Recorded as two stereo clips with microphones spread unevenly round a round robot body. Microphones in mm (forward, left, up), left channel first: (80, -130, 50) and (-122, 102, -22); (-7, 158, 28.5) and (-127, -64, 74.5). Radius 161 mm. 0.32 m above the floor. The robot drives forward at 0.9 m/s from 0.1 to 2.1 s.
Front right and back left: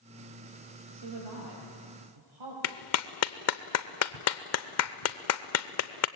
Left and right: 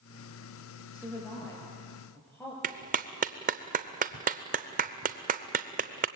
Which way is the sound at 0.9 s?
140° left.